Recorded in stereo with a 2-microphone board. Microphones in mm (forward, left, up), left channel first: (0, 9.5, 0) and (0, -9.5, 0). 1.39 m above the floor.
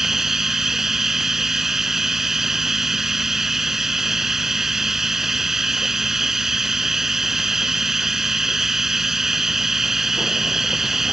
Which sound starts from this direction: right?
Running water, at 0.0 s.